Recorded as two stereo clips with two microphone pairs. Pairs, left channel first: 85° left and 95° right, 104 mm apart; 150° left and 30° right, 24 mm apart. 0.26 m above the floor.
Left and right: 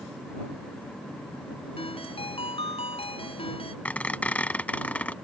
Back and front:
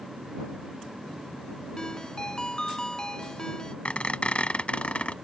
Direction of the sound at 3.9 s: 160° left.